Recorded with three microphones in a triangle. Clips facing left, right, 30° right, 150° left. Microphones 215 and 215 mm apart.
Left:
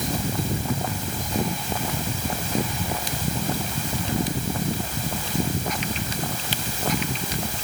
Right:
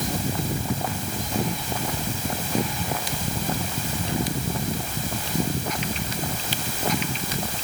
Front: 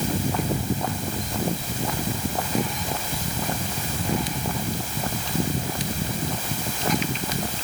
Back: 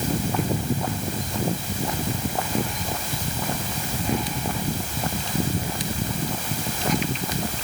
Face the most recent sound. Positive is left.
No sound to turn to.